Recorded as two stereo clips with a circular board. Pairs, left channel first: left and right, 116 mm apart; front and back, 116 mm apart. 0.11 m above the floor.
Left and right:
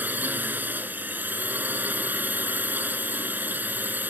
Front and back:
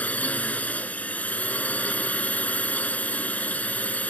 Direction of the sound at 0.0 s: 50° right.